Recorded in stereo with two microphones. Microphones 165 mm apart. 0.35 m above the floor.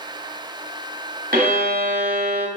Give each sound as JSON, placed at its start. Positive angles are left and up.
{"t": 1.3, "sound": "a violin", "side_deg": -60, "distance_m": 0.9}